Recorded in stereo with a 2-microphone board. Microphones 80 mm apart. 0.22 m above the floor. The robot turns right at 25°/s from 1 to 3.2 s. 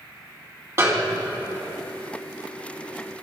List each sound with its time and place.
0.8 s a snare drum: 35° right (ahead or behind), 1.4 m; by 1.4 s 30° right (ahead or behind), 1.4 m